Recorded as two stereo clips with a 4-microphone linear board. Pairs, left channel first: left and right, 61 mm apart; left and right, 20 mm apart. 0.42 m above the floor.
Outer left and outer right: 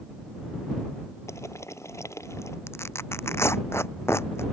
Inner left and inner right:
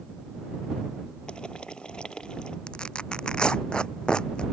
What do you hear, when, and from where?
1.3 s boiling: 50° left (ahead or behind)
2.7 s tearing paper: 45° left (ahead or behind)